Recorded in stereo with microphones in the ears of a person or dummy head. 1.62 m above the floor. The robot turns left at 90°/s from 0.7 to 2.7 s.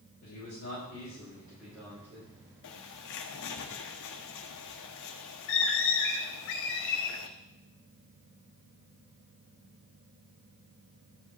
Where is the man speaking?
90° left, 6 m; by 2.4 s 60° right, 6 m.